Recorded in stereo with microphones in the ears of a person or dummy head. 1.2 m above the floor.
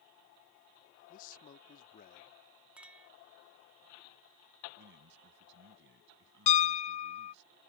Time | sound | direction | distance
1.1 | a man speaking | 50° left (ahead or behind) | ?
2.8 | a clink | 10° right (ahead or behind) | ?
4.8 | a man speaking | 65° right (ahead or behind) | ?
6.5 | a piano | 40° left (ahead or behind) | ?